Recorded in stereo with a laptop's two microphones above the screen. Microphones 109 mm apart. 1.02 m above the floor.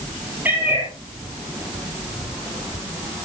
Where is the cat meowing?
20° right (ahead or behind), 2.5 m.